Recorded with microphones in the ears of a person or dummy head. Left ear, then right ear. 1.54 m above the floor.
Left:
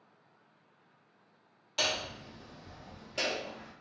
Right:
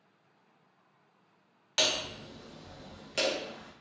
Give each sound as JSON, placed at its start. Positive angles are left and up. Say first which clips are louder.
{"t": 1.8, "sound": "hammering", "louder": "right 3 dB", "side_deg": -65, "distance_m": 0.7}